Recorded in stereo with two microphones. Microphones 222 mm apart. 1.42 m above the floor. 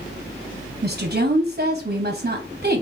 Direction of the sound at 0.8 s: 40° right (ahead or behind).